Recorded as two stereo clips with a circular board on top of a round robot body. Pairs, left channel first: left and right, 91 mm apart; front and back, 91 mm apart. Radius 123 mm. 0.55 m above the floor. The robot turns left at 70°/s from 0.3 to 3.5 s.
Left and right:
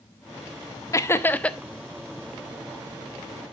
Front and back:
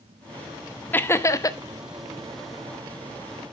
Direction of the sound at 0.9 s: 60° left.